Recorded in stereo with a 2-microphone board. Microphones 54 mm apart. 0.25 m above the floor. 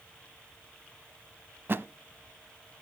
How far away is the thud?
About 0.6 m.